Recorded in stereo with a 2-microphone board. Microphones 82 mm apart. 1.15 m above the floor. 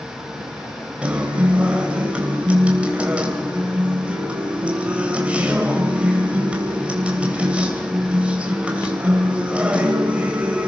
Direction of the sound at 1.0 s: 15° right (ahead or behind).